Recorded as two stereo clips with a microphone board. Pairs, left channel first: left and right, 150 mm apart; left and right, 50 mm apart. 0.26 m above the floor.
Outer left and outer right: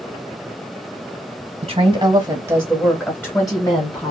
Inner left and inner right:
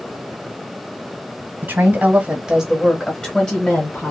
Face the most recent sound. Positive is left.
turn(degrees=40)  # may be behind; listen again after turning